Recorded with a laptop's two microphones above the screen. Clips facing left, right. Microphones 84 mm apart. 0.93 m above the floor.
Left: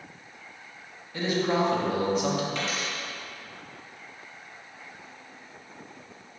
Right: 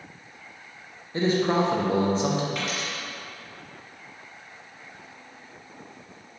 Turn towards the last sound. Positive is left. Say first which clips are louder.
# even
turn(degrees=-5)  # may be behind; listen again after turning